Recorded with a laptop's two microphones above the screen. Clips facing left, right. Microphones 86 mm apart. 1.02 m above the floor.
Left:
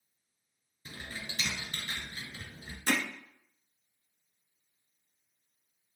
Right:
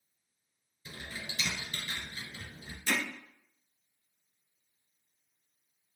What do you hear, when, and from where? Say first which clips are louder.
0.8 s typing on a keyboard: even; 40° left (ahead or behind), 2 m
2.9 s hammering: left 2 dB; 50° left (ahead or behind), 0.6 m